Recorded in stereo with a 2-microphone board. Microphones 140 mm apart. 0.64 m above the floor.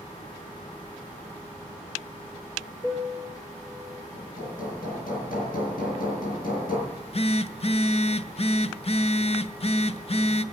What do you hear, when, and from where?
2.8 s a piano: 35° left (ahead or behind), 2.5 m
4.1 s hammering: 85° left, 7.5 m
6.9 s a phone buzzing: 45° left (ahead or behind), 0.6 m